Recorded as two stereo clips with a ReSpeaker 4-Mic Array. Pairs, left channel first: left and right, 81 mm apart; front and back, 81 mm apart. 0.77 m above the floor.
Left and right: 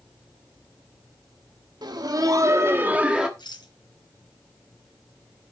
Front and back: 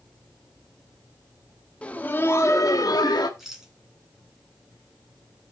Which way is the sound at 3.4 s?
95° left.